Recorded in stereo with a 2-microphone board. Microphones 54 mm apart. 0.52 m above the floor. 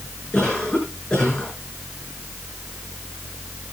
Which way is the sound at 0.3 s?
15° left (ahead or behind).